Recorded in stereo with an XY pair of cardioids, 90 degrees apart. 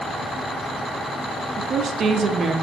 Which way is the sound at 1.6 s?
60° right.